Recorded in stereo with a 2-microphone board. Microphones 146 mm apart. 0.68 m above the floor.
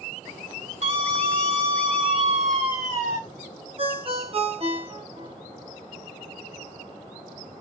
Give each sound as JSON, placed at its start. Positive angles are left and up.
{"t": 0.8, "sound": "a scream", "side_deg": -60, "distance_m": 2.0}
{"t": 3.8, "sound": "a ringtone", "side_deg": -40, "distance_m": 0.9}